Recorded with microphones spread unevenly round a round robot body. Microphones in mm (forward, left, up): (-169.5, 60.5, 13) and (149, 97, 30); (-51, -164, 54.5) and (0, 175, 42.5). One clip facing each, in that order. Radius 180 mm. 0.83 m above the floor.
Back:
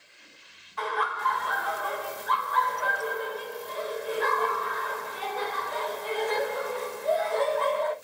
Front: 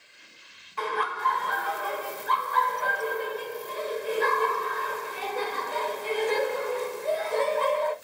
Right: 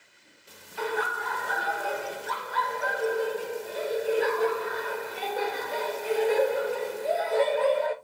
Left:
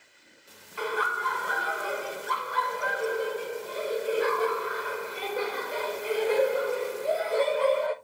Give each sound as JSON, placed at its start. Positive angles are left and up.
{"t": 0.8, "sound": "laughter", "azimuth_deg": 5, "distance_m": 1.0}